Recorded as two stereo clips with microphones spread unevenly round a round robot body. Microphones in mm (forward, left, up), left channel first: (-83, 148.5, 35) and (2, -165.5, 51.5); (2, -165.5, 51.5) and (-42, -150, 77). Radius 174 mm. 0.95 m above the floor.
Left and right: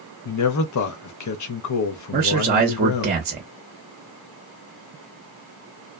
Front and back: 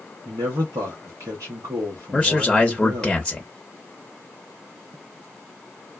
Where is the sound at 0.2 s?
130° left, 0.8 m.